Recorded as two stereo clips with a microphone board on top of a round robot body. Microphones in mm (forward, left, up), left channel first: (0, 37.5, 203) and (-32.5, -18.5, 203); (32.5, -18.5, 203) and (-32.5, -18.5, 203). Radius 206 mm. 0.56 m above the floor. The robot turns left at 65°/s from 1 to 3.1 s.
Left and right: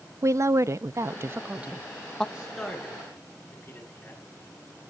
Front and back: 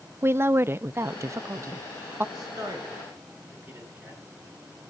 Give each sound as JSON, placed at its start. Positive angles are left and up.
{"t": 0.2, "sound": "a woman speaking", "azimuth_deg": -140, "distance_m": 0.7}
{"t": 2.4, "sound": "a man speaking", "azimuth_deg": 165, "distance_m": 5.5}